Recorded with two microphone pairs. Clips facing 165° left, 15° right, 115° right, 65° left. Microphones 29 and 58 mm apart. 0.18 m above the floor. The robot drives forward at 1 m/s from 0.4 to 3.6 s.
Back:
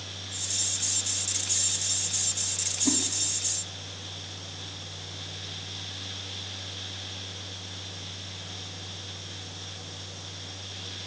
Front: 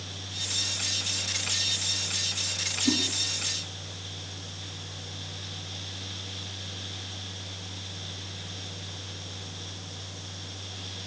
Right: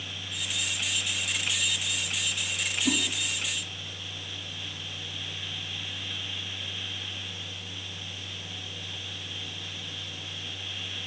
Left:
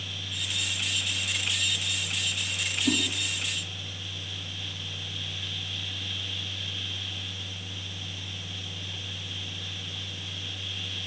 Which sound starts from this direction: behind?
A whoosh, at 2.9 s.